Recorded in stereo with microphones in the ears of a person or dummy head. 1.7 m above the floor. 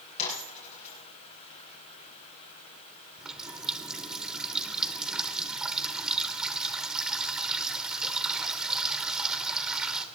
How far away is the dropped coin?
About 8 m.